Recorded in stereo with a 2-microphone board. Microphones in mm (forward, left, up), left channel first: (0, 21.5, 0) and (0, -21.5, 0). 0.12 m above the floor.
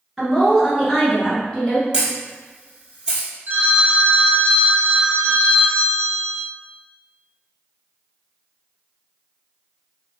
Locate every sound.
0.2 s a woman speaking: 5° right (ahead or behind), 1.3 m; by 1.8 s 25° left (ahead or behind), 1.2 m
1.9 s a camera shutter: 15° right (ahead or behind), 1.1 m
3.5 s a phone ringing: 40° right (ahead or behind), 1.3 m